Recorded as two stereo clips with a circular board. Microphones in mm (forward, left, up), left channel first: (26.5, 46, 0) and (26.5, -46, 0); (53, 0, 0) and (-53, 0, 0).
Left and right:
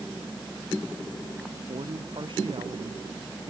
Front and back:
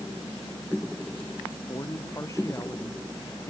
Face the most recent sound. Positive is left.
turn(degrees=-60)